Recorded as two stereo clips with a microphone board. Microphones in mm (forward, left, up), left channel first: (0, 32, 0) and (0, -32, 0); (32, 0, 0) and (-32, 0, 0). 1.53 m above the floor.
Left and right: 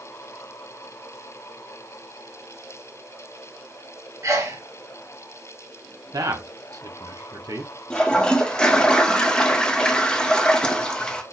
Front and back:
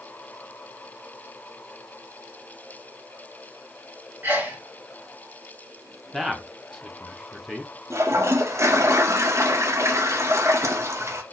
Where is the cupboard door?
I don't hear a cupboard door.